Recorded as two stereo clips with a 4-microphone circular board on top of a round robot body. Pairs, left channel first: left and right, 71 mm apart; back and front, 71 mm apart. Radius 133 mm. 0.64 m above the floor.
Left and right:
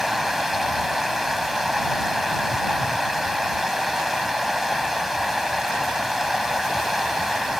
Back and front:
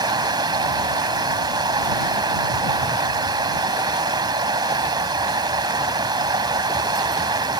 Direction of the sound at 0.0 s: Straight ahead.